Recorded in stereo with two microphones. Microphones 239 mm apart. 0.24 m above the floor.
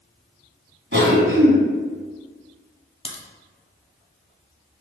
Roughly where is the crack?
Left.